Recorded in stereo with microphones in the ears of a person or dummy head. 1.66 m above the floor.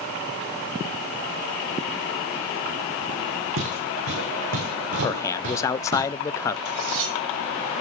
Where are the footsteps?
65° right (ahead or behind), 6 m; by 6.0 s 70° right (ahead or behind), 5 m.